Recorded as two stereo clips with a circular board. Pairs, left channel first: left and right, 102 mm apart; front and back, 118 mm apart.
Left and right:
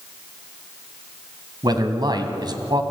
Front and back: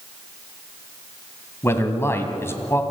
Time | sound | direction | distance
1.6 | a man speaking | 60° right | 2 m